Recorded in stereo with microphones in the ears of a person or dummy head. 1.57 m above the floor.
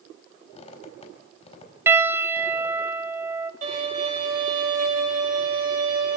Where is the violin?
35° right (ahead or behind), 4.5 m.